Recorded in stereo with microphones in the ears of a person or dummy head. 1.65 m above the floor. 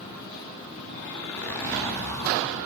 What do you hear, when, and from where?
1.1 s a zipper: 15° left (ahead or behind), 4 m